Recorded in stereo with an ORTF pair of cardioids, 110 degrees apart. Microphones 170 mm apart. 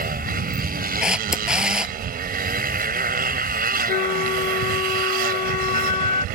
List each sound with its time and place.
0.0 s a motorcycle: 65° right
1.0 s a camera shutter: 5° right
3.9 s a flute: 45° left